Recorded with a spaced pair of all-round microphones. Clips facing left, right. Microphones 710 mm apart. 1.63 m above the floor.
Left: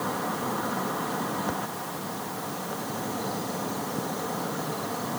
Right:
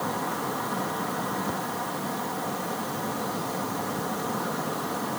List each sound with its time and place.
Only background noise.